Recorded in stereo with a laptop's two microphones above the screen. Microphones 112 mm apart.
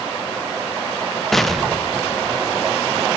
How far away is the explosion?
About 0.5 m.